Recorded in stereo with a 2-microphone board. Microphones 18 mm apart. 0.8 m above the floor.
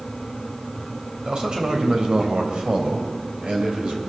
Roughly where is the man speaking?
Right.